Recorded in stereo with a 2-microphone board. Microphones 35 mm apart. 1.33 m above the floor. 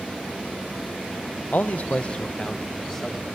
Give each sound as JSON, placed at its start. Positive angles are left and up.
{"t": 1.5, "sound": "a man speaking", "side_deg": 65, "distance_m": 0.8}